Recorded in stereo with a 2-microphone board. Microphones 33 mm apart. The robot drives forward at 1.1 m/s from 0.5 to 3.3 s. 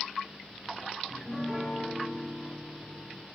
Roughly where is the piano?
Centre.